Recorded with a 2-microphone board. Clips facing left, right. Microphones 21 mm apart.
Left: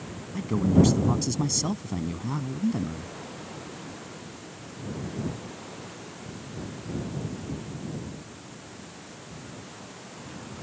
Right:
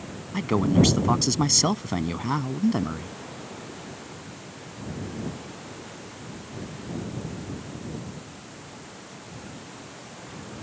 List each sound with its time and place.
0.3 s a man speaking: 45° right (ahead or behind)